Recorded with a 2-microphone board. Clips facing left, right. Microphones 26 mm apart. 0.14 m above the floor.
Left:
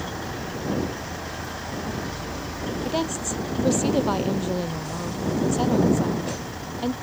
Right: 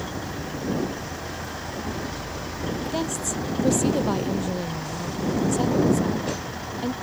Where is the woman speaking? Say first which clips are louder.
Left 3 dB; 15° left (ahead or behind).